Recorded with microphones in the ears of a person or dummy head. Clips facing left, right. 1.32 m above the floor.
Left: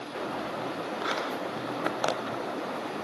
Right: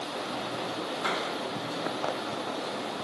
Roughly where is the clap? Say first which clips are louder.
Even; right.